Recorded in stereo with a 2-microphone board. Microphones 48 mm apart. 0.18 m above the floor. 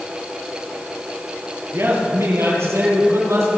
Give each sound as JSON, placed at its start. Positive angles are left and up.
{"t": 1.7, "sound": "a man speaking", "side_deg": -60, "distance_m": 4.0}